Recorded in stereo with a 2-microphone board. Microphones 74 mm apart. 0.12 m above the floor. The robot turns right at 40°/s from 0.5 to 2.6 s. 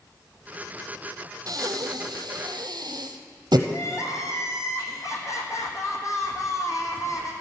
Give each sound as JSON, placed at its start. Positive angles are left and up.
{"t": 1.5, "sound": "breathing", "side_deg": -60, "distance_m": 0.7}
{"t": 3.7, "sound": "crying", "side_deg": 45, "distance_m": 1.4}